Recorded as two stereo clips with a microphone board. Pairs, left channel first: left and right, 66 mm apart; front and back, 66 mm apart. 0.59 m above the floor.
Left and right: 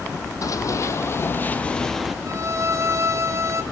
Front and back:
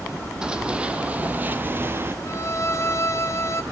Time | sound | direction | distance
0.4 | running footsteps | 105° left | 1.0 m
2.2 | a violin | 45° right | 0.7 m